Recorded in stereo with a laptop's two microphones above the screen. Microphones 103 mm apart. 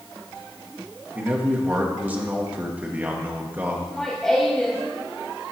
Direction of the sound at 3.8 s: 5° left (ahead or behind).